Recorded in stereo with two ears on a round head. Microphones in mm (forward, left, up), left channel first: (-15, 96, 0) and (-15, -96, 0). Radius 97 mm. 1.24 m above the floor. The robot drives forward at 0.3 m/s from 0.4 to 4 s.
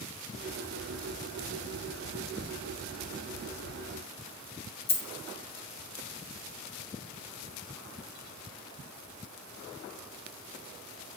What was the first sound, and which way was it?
A dropped coin, 30° left (ahead or behind).